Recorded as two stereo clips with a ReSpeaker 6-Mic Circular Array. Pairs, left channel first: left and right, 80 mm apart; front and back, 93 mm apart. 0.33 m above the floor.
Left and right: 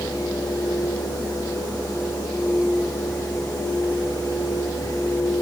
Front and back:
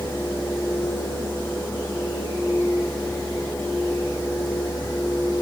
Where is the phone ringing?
I don't hear a phone ringing.